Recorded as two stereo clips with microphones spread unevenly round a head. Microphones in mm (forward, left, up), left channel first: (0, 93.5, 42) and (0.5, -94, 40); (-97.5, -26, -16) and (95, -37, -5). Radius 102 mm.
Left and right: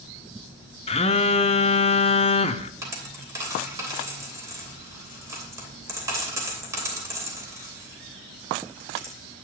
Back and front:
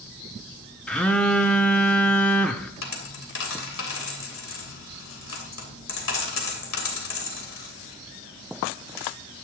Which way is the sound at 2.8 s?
165° right.